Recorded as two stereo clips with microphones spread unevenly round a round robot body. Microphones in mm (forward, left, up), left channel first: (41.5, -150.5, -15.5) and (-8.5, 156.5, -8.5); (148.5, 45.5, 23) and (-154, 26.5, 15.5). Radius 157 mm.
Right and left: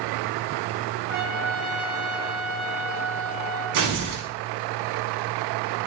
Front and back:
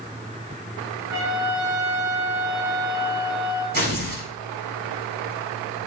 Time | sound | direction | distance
1.1 | a trumpet | 135° right | 8.5 m
3.7 | tearing paper | 125° left | 6.5 m